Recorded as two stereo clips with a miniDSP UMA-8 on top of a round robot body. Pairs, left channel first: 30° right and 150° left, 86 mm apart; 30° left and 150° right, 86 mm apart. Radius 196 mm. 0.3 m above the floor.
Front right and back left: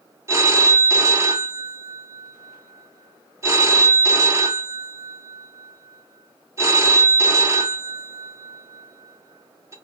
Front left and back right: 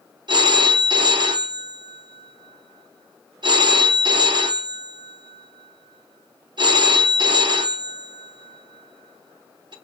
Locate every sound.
0.3 s a phone ringing: 160° right, 0.8 m